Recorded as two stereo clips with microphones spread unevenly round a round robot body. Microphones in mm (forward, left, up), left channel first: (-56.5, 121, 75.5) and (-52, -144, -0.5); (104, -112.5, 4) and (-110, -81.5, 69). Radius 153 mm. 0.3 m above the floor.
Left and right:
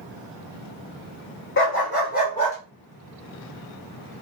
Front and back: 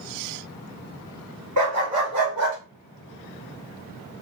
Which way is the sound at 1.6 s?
140° left.